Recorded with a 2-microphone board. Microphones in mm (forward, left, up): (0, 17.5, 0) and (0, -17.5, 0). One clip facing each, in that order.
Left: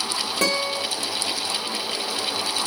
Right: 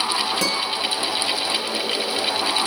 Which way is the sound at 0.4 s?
35° left (ahead or behind).